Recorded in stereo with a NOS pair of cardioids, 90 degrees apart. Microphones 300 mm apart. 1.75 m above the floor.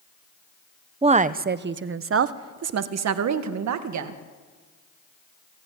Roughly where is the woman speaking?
Ahead.